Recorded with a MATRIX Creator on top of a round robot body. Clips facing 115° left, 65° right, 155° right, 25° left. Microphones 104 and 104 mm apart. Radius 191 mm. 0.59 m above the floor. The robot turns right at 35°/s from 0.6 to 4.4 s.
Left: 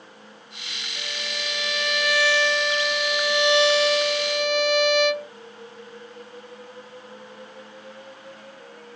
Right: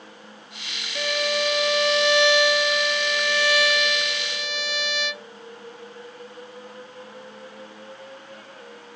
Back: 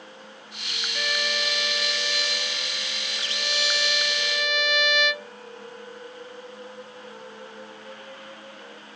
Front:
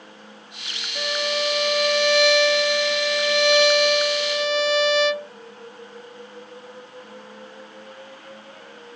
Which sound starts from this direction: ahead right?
A violin, at 0.9 s.